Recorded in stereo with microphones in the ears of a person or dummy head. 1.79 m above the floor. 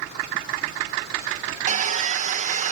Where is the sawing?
45° right (ahead or behind).